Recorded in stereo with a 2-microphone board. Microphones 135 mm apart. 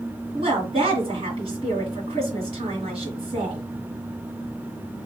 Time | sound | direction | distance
0.3 | a woman speaking | 45° right (ahead or behind) | 1.8 m